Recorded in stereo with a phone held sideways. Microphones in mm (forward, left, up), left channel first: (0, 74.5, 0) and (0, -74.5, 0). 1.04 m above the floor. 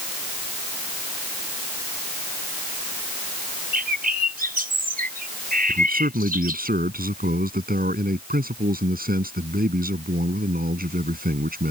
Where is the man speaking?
85° right.